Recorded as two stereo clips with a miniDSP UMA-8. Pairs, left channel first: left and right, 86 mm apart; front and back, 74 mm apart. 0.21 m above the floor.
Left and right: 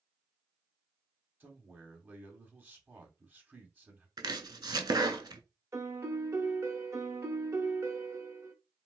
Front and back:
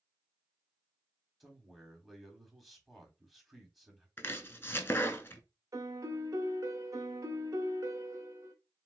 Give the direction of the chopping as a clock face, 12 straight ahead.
2 o'clock.